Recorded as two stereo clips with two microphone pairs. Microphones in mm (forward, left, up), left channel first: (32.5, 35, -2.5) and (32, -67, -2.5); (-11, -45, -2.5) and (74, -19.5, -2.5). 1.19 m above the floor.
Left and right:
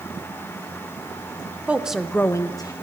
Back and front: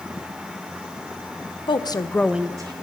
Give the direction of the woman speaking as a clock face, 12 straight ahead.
5 o'clock.